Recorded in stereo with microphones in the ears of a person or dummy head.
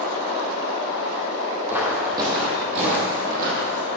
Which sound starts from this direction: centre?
Footsteps, at 1.7 s.